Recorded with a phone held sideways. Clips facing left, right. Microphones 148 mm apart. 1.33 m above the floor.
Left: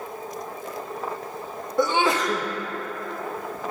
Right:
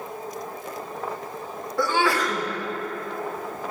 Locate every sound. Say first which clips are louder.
1.8 s a sneeze: left 1 dB; 20° left (ahead or behind), 0.7 m